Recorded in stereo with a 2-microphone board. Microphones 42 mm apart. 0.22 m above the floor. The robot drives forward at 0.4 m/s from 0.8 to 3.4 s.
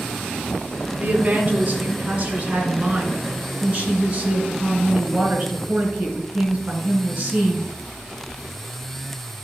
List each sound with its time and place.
1.0 s a woman speaking: 35° right (ahead or behind), 2.5 m; by 7.7 s 25° right (ahead or behind), 3 m